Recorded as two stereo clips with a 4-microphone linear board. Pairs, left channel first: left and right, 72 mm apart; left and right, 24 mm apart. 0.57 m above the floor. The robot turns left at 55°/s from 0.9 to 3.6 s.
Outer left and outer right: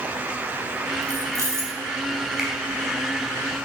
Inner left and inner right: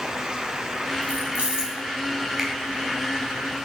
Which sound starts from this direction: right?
Keys jangling, at 1.0 s.